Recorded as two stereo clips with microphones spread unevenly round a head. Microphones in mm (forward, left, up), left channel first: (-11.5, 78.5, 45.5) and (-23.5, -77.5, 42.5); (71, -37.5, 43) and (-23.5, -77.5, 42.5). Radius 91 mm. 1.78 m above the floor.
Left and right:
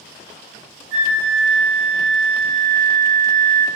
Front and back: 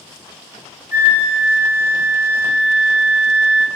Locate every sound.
0.9 s a flute: 85° right, 0.7 m